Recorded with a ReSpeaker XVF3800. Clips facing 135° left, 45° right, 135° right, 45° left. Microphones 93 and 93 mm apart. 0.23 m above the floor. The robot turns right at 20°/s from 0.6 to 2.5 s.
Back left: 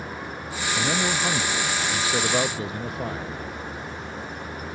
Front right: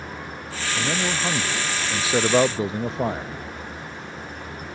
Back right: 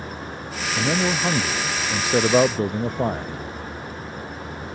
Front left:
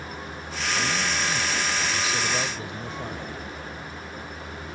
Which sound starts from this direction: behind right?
A man speaking, at 0.8 s.